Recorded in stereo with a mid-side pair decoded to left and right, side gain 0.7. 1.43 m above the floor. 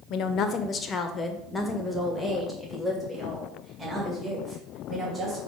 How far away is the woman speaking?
About 0.9 m.